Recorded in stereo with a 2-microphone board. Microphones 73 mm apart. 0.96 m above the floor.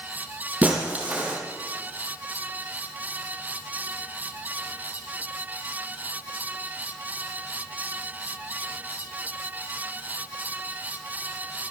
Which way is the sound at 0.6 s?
20° right (ahead or behind).